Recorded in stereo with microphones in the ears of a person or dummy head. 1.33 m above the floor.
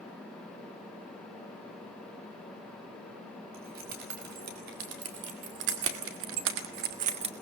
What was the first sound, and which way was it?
Keys jangling, 50° right (ahead or behind).